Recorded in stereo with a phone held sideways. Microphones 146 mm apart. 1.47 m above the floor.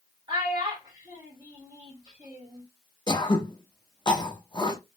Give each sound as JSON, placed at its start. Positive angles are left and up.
{"t": 0.3, "sound": "a child speaking", "side_deg": -30, "distance_m": 1.7}
{"t": 3.1, "sound": "throat clearing", "side_deg": 30, "distance_m": 0.7}